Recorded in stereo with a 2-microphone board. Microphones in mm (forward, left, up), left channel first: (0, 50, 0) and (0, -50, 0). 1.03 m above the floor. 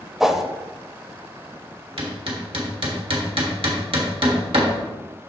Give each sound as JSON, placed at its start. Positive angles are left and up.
{"t": 0.2, "sound": "a whoosh", "side_deg": -5, "distance_m": 0.6}
{"t": 2.0, "sound": "hammering", "side_deg": -60, "distance_m": 1.4}